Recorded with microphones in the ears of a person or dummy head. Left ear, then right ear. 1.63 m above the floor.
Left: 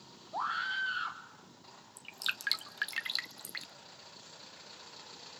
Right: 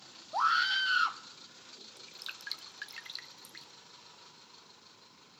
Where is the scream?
60° right (ahead or behind), 1.2 m.